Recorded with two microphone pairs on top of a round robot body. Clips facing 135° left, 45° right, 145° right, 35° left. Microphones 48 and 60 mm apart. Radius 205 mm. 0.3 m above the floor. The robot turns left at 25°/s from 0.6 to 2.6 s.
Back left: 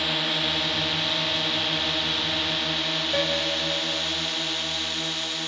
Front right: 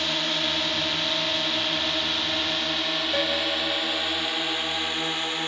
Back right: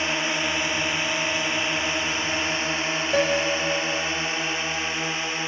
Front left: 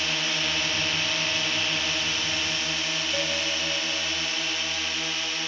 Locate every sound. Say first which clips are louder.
0.0 s a drone: even, back right 3 dB; 115° right; by 5.5 s 85° right
3.1 s a piano: back left 1 dB, back right 10 dB; 140° right